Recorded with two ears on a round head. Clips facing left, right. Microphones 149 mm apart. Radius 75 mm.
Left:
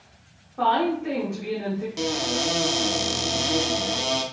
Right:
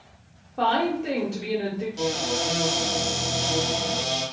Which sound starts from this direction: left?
A cupboard door, at 2.0 s.